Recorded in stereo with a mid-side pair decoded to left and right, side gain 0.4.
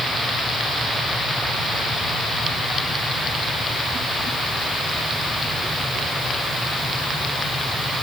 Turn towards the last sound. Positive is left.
No sound to turn to.